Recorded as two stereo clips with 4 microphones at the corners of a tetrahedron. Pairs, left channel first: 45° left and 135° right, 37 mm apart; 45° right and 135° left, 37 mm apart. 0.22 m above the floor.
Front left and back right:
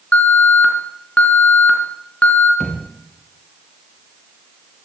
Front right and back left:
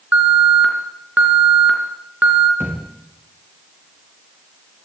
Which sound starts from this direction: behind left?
A thud, at 2.6 s.